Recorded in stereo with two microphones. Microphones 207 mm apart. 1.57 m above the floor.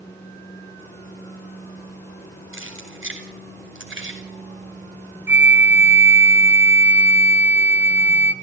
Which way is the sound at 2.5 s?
75° right (ahead or behind).